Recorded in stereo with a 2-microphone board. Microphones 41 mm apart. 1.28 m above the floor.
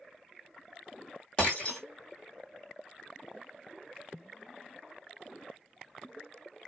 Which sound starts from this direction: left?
Breaking glass, at 1.4 s.